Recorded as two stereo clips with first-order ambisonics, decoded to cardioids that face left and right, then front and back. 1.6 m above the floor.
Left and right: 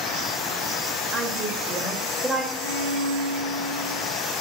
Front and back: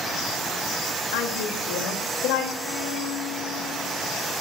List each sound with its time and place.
1.1 s a woman speaking: 10° right, 3 m
2.5 s a violin: 50° right, 5.5 m